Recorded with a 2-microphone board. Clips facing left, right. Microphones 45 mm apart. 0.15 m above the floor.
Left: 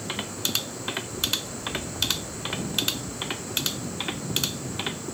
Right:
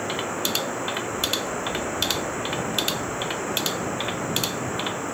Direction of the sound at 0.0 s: 45° right (ahead or behind).